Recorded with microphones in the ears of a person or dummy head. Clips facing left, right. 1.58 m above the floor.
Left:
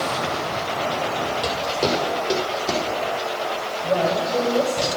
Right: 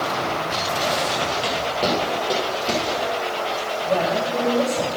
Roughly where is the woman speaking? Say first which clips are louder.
Left 1 dB; left.